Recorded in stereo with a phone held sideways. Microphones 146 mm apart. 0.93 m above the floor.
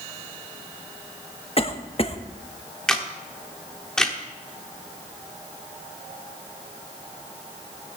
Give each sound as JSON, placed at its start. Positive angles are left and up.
{"t": 1.6, "sound": "a cough", "side_deg": 40, "distance_m": 1.0}
{"t": 2.9, "sound": "a camera shutter", "side_deg": 5, "distance_m": 1.3}